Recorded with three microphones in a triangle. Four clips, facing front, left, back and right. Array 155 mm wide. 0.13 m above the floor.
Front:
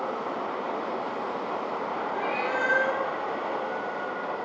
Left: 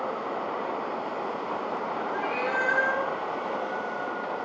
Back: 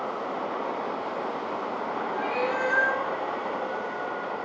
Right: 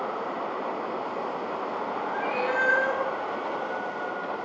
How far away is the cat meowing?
About 1.3 m.